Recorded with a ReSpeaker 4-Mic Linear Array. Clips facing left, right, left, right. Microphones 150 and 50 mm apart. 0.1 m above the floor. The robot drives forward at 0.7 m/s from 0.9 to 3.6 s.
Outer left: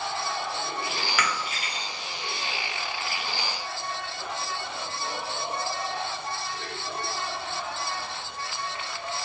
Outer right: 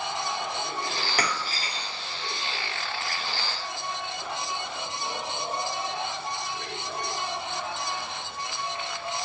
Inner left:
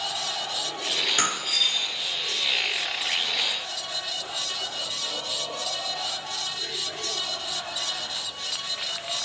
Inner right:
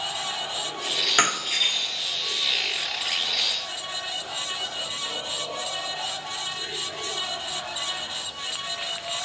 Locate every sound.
1.2 s breaking glass: 40° right (ahead or behind), 1.1 m; by 1.9 s 30° right (ahead or behind), 1.4 m